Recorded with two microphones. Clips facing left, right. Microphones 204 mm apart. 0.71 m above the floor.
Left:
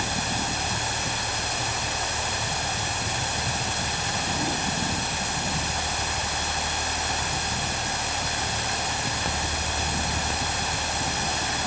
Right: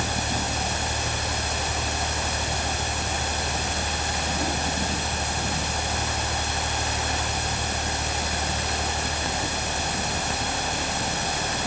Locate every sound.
Only background noise.